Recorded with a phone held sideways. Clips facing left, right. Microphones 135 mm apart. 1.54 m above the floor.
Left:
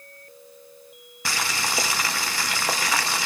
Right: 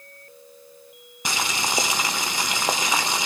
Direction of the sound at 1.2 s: 20° right (ahead or behind).